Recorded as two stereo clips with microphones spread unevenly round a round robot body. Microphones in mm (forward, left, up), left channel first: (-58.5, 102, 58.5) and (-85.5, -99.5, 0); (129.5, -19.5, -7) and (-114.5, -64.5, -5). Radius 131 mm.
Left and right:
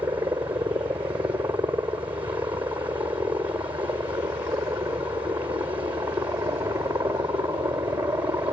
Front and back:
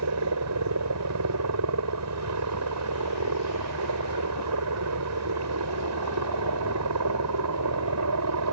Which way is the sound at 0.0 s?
170° right.